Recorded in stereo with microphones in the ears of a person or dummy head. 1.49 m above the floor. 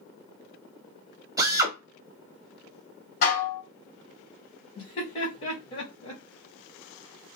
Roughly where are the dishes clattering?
Left.